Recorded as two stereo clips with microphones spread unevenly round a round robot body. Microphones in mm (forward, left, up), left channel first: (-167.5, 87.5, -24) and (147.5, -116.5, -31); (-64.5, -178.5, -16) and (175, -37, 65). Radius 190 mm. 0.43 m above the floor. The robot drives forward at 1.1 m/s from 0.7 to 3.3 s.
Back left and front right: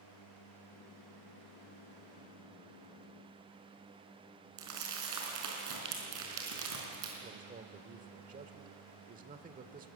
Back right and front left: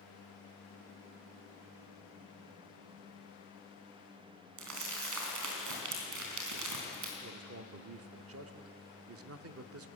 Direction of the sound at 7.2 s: 15° left.